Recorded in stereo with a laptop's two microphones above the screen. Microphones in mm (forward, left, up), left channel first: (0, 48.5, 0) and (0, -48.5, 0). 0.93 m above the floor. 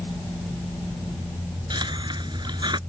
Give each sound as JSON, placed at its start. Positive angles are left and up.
{"t": 1.7, "sound": "a hiss", "side_deg": -45}